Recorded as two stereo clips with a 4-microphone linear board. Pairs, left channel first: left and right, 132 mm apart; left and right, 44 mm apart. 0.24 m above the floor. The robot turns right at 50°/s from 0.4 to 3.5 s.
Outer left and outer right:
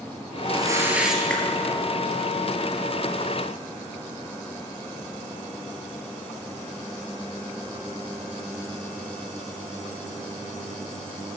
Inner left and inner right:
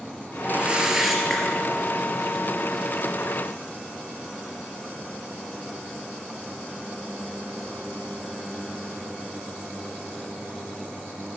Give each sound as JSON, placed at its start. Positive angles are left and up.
{"t": 0.4, "sound": "a whoosh", "azimuth_deg": -40, "distance_m": 2.5}